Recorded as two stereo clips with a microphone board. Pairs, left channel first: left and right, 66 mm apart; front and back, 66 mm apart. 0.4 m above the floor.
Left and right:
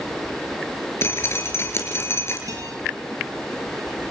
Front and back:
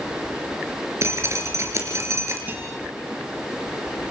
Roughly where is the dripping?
Behind left.